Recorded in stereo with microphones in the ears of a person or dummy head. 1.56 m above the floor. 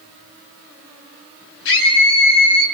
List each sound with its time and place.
1.6 s a scream: 70° left (ahead or behind), 10 m